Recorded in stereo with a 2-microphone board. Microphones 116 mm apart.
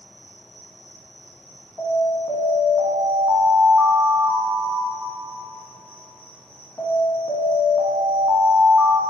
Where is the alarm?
30° left (ahead or behind), 0.9 m.